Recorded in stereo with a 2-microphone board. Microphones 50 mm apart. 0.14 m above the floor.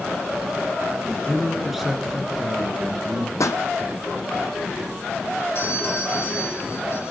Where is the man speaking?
10° left (ahead or behind), 1.9 m; by 3.3 s 30° right (ahead or behind), 2.5 m.